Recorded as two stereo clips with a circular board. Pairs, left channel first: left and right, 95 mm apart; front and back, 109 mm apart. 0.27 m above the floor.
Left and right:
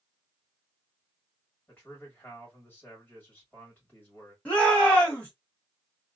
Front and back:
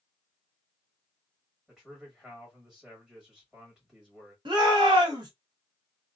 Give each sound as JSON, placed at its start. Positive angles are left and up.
{"t": 1.7, "sound": "a man speaking", "azimuth_deg": 110, "distance_m": 1.6}
{"t": 4.5, "sound": "a shout", "azimuth_deg": 160, "distance_m": 1.5}